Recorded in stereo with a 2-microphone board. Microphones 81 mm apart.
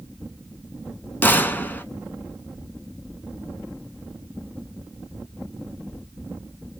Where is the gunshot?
25° left (ahead or behind), 0.6 m.